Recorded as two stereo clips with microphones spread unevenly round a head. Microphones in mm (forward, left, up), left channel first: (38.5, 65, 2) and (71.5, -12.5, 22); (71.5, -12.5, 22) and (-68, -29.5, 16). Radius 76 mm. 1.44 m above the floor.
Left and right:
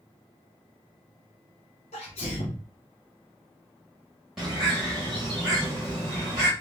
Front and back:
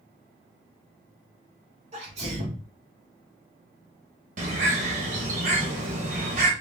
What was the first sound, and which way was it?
A sneeze, 135° left.